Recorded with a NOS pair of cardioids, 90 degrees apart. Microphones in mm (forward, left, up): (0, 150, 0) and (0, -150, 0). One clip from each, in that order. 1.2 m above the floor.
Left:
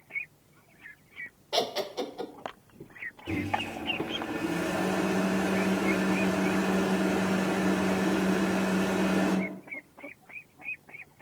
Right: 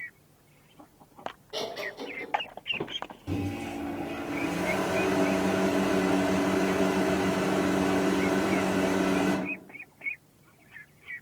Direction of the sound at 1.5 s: 65° left.